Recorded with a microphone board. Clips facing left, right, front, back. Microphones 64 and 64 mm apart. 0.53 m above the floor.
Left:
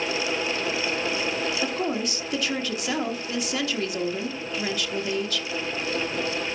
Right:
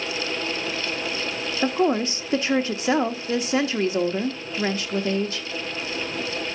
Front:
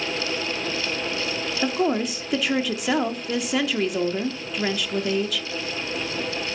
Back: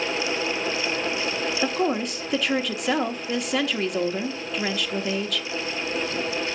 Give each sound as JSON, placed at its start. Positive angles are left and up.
{"t": 1.6, "sound": "a woman speaking", "azimuth_deg": -85, "distance_m": 0.9}